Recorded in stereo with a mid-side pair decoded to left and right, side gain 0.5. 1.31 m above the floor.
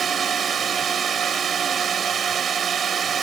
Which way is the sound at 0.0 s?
45° right.